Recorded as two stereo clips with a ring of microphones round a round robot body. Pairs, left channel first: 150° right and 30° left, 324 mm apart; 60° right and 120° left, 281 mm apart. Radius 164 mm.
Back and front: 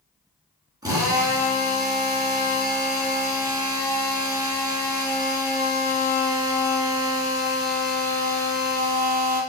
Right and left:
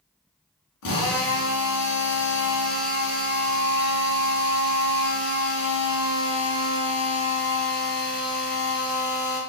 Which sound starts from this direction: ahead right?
A drill, at 0.8 s.